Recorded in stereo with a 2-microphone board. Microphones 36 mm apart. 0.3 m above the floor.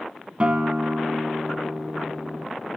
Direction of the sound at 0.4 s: 35° right (ahead or behind).